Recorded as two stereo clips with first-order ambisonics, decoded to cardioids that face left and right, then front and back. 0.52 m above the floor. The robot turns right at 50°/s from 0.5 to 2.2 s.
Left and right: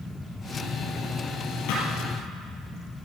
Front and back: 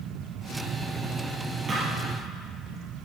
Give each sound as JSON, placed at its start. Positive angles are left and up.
{"t": 1.7, "sound": "a thud", "azimuth_deg": 105, "distance_m": 4.5}